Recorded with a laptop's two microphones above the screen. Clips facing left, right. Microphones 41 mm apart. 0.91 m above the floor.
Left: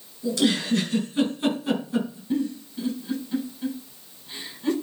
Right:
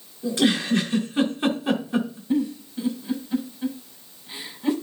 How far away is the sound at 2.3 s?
About 6 m.